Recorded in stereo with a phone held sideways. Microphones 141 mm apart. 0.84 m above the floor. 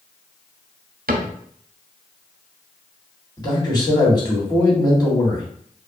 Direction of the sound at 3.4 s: 25° left (ahead or behind).